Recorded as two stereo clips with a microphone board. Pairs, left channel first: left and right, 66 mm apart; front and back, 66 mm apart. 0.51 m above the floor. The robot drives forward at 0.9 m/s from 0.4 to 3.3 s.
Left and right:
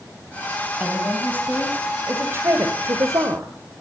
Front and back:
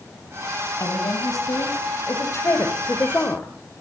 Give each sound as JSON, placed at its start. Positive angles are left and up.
{"t": 0.8, "sound": "a woman speaking", "azimuth_deg": -25, "distance_m": 3.5}